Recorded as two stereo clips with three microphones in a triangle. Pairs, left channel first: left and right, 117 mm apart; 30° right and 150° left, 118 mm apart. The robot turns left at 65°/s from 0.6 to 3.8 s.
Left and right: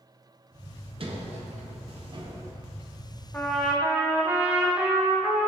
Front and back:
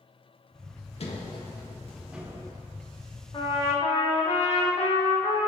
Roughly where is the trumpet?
Ahead.